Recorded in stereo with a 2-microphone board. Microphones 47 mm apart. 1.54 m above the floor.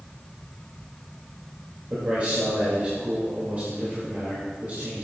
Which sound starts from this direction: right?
A man speaking, at 1.9 s.